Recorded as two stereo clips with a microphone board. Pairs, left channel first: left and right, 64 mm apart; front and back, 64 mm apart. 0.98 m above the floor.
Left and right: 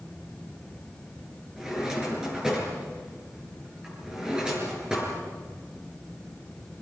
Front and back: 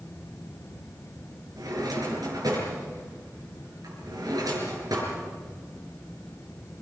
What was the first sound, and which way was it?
A drawer, 165° right.